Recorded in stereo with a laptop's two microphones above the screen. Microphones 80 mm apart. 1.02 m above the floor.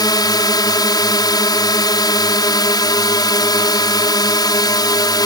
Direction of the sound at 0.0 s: 60° left (ahead or behind).